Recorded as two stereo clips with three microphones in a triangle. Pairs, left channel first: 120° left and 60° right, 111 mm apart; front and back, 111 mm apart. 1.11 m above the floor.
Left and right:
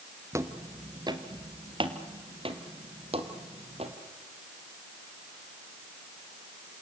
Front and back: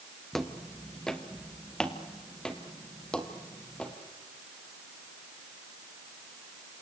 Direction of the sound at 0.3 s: 85° right.